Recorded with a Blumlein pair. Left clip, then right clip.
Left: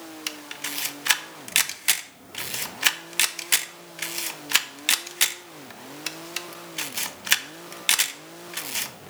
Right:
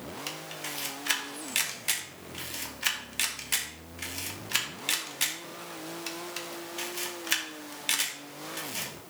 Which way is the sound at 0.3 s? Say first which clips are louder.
Left 6 dB; 25° left.